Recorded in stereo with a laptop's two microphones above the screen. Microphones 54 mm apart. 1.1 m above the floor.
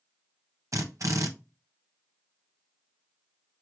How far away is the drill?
About 1.5 m.